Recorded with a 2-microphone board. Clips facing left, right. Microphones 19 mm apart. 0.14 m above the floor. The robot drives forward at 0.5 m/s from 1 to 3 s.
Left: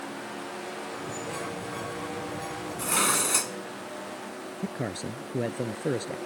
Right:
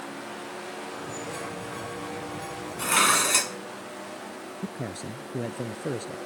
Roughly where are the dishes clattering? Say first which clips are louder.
Right 5 dB; right.